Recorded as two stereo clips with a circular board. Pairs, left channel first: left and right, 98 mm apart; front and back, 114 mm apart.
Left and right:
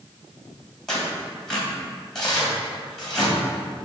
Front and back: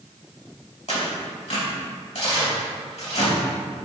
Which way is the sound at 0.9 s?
5° left.